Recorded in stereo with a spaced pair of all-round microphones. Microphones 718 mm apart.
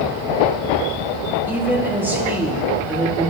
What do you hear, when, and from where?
1.5 s a woman speaking: 5° right (ahead or behind), 1.9 m